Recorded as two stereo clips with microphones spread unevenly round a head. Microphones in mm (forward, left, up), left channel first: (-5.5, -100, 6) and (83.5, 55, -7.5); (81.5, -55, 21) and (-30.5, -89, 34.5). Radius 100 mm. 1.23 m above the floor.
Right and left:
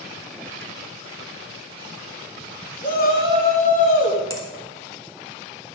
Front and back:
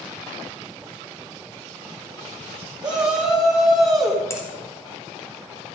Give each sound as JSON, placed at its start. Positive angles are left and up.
{"t": 2.8, "sound": "a shout", "azimuth_deg": -80, "distance_m": 3.0}
{"t": 4.3, "sound": "a finger snap", "azimuth_deg": -50, "distance_m": 2.5}